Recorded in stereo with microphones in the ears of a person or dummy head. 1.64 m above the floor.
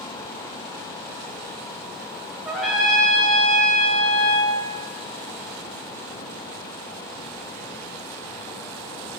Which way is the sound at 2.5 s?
Centre (ahead or behind).